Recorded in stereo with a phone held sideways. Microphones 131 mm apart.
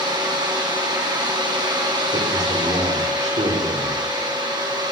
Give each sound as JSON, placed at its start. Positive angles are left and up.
{"t": 0.0, "sound": "a fan", "side_deg": -30, "distance_m": 3.0}
{"t": 2.1, "sound": "a man speaking", "side_deg": -60, "distance_m": 4.5}